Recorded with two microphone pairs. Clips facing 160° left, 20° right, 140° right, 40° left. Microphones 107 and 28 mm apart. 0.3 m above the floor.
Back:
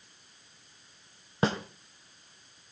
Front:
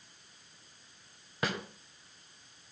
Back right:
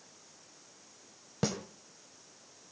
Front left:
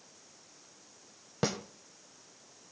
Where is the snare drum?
110° left, 1.4 m.